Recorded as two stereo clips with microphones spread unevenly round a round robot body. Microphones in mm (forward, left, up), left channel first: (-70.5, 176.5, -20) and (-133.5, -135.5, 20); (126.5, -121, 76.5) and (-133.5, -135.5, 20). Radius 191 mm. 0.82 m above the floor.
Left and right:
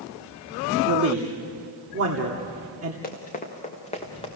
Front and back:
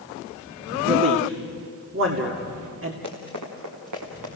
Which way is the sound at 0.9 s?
150° right.